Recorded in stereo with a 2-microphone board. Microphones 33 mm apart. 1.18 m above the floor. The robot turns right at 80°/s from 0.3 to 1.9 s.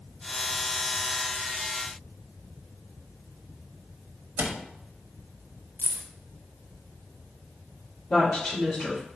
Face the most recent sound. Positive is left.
turn(degrees=80)